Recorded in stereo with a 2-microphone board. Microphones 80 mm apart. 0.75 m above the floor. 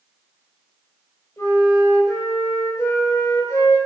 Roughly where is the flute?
Left.